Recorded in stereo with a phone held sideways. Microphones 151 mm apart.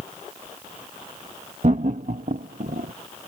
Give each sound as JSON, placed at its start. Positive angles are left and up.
{"t": 1.6, "sound": "laughter", "side_deg": -50}